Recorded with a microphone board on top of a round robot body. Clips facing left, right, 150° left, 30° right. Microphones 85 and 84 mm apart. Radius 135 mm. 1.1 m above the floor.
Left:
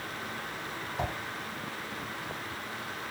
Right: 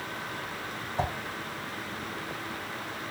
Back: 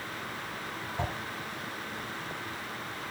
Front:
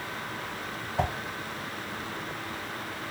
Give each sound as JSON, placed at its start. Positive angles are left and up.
{"t": 1.0, "sound": "a whoosh", "azimuth_deg": -30, "distance_m": 0.5}